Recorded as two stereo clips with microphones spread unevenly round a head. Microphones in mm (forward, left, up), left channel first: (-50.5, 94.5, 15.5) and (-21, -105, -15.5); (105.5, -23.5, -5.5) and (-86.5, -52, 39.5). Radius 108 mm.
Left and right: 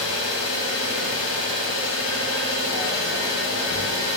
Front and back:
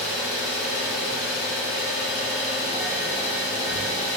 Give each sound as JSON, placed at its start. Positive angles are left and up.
{"t": 0.0, "sound": "an engine running", "azimuth_deg": 85, "distance_m": 1.2}